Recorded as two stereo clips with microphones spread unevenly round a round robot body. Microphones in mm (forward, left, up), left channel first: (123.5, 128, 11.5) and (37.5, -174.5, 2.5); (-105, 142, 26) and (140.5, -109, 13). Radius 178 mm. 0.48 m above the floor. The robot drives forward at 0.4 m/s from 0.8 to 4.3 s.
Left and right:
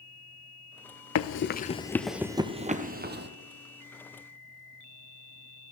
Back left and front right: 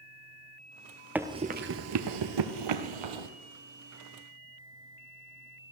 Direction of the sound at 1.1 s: 40° left.